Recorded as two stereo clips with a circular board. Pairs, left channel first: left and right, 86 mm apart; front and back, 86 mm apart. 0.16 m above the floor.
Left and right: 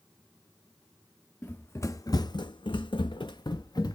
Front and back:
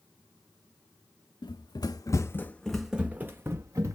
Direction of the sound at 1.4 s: 20° left.